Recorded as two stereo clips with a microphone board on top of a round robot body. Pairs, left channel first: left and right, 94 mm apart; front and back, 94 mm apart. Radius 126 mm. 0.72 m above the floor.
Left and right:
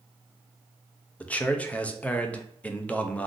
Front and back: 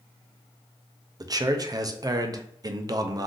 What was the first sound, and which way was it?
A man speaking, 160° left.